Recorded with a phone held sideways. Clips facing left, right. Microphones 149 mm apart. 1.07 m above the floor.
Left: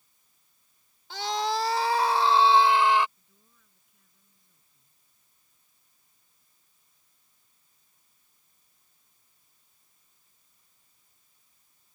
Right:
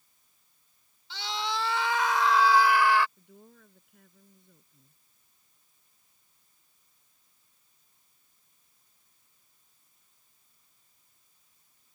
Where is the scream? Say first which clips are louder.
Left 6 dB; 50° left (ahead or behind); by 3.1 s 20° left (ahead or behind).